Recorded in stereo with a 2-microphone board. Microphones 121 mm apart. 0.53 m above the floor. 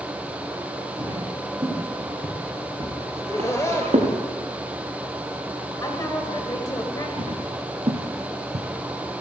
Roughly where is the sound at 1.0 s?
Right.